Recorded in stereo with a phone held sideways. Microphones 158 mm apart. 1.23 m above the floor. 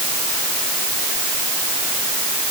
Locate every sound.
Only background noise.